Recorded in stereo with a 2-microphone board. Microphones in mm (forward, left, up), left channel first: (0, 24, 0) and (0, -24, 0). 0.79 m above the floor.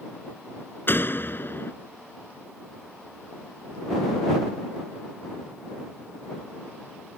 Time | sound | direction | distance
0.9 | a door slam | 45° left (ahead or behind) | ?